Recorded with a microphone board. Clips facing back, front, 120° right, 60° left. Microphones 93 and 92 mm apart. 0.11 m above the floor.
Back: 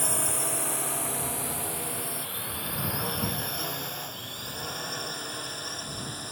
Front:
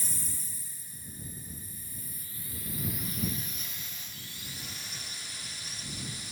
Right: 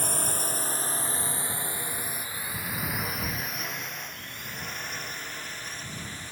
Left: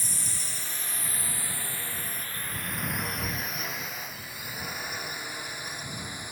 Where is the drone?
155° right; by 6.3 s 135° left.